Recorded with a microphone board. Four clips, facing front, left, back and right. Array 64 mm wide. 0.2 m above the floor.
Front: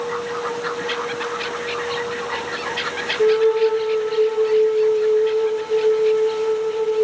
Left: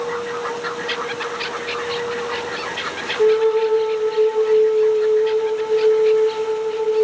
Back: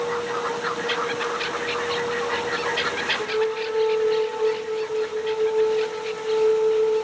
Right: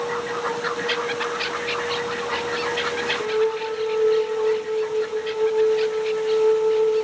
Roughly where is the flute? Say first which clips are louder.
Left 10 dB, front 12 dB; ahead left.